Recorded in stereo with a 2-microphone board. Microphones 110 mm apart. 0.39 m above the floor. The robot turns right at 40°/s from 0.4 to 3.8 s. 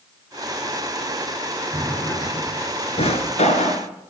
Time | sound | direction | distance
1.7 | a drawer | 15° left (ahead or behind) | 1.3 m